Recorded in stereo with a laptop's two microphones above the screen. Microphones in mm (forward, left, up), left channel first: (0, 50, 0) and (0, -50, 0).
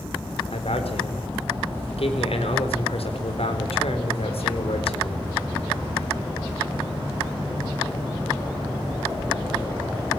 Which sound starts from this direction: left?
A man speaking, at 0.5 s.